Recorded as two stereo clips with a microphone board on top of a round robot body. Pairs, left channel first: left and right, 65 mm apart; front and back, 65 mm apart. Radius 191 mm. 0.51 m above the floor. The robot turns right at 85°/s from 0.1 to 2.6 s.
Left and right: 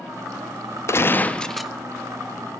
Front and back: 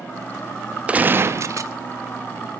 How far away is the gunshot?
About 0.6 m.